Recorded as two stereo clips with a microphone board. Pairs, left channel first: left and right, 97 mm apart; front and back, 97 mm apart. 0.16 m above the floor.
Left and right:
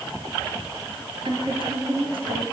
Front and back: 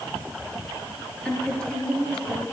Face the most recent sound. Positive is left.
turn(degrees=-80)